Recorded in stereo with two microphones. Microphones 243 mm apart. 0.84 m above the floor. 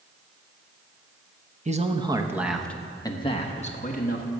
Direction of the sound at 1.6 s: 30° right (ahead or behind).